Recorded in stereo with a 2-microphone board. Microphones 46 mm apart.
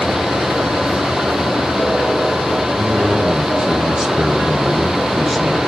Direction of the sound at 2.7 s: 20° right (ahead or behind).